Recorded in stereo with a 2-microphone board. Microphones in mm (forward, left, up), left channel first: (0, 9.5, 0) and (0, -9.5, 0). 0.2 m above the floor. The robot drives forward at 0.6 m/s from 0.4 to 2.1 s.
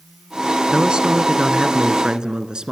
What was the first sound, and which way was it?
A man speaking, 55° right (ahead or behind).